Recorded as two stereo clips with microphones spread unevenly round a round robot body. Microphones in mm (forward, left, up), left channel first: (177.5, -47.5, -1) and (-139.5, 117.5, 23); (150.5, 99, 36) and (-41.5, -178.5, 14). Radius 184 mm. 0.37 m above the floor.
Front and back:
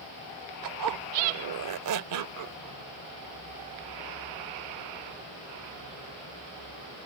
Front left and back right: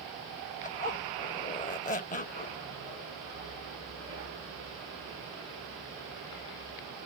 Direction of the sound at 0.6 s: 125° left.